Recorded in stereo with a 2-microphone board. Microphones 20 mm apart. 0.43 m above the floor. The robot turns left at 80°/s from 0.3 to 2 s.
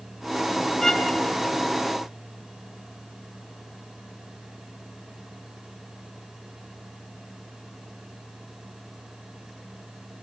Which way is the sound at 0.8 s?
165° left.